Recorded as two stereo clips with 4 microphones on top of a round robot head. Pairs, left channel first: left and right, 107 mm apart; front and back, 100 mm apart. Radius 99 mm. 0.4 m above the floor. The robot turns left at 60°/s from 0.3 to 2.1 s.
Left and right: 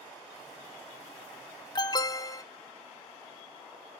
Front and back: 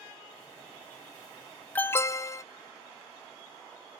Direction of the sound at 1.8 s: 70° left.